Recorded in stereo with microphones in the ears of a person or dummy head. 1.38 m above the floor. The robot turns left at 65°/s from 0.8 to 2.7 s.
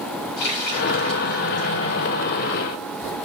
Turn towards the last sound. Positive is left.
turn(degrees=-65)